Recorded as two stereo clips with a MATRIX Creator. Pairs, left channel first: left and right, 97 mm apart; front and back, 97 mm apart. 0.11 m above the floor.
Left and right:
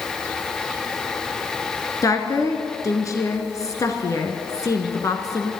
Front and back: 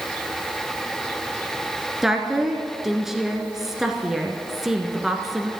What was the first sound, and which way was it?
A woman speaking, 100° left.